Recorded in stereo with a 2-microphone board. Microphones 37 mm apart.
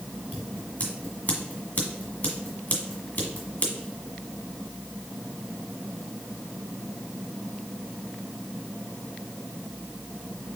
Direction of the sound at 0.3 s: 45° left (ahead or behind).